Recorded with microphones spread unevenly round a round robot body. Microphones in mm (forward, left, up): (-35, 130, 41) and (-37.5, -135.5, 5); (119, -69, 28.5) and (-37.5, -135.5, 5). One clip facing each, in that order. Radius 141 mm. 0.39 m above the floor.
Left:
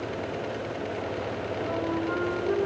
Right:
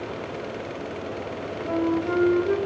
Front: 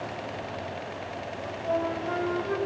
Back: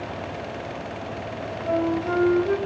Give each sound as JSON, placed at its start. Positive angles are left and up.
{"t": 1.4, "sound": "a flute", "azimuth_deg": -140, "distance_m": 3.5}